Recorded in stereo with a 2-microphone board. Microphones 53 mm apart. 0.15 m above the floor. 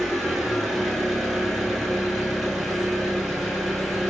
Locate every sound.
0.0 s an engine running: 5° left (ahead or behind), 0.9 m